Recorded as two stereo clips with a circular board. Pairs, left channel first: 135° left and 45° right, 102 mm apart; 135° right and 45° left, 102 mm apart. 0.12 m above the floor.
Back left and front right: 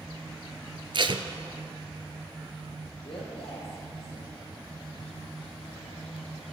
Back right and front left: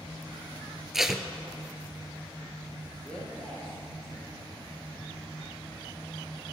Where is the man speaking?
145° left, 3.5 m.